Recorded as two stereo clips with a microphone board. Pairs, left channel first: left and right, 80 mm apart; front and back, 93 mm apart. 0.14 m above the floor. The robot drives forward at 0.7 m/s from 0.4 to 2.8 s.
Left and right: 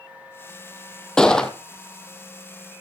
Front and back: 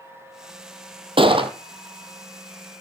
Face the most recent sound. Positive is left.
turn(degrees=175)